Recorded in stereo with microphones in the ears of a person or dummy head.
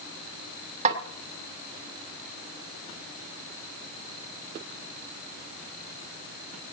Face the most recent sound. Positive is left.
turn(degrees=-40)  # may be behind; listen again after turning